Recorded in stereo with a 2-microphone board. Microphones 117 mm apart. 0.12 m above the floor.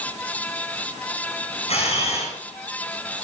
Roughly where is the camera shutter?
Left.